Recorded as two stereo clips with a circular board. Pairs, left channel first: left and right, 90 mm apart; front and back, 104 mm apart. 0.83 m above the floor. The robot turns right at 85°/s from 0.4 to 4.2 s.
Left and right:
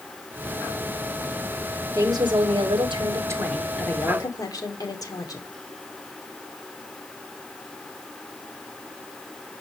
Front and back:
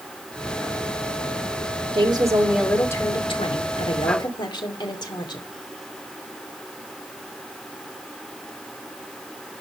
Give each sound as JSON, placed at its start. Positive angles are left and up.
{"t": 1.9, "sound": "a woman speaking", "azimuth_deg": -150, "distance_m": 2.0}